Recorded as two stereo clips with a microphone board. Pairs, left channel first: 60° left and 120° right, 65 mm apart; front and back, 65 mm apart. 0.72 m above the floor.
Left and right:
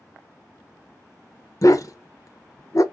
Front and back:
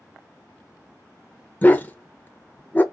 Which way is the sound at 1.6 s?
60° left.